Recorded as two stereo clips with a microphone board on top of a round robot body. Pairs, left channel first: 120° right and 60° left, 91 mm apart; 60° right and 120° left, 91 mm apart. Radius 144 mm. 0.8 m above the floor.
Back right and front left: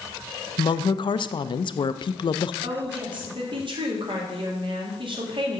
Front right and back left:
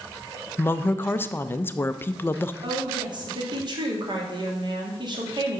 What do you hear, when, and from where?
0.6 s a woman speaking: 125° right, 0.5 m
2.6 s a woman speaking: 85° left, 1.9 m